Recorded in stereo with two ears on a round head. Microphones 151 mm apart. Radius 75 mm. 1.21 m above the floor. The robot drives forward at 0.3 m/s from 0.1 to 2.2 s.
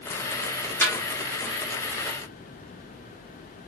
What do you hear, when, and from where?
0.8 s a snare drum: 15° left (ahead or behind), 1.0 m; by 1.0 s 10° left (ahead or behind), 1.0 m